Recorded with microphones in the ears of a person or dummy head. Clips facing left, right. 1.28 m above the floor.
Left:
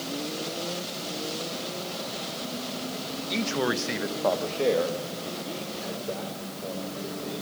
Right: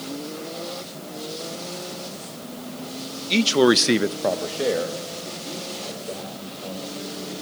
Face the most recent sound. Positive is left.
turn(degrees=10)  # may be behind; listen again after turning